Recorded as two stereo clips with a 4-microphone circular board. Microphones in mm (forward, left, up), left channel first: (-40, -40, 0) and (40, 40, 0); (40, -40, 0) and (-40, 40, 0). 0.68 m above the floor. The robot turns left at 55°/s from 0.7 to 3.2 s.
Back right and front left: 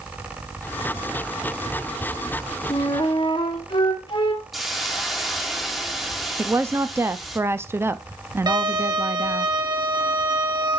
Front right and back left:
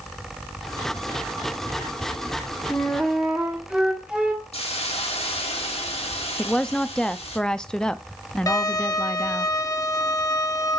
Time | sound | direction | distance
2.7 | a flute | 120° right | 1.5 m
4.5 | a hiss | 45° right | 1.4 m
6.4 | a woman speaking | 25° left | 0.5 m
8.5 | a violin | 5° left | 1.2 m